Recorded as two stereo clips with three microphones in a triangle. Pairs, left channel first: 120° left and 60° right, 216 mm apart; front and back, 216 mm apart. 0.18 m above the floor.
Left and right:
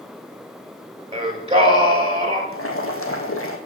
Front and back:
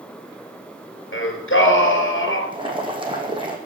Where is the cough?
No cough in this recording.